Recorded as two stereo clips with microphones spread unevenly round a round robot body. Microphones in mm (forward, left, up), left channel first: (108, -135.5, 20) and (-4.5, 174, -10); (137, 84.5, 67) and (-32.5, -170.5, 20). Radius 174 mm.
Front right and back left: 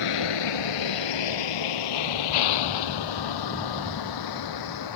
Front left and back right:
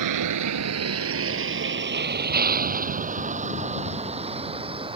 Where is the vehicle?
105° right; by 5.0 s 50° right.